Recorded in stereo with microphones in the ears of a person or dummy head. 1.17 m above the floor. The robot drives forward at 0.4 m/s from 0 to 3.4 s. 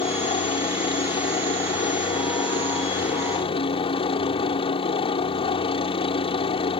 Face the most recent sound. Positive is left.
turn(degrees=25)  # may be behind; listen again after turning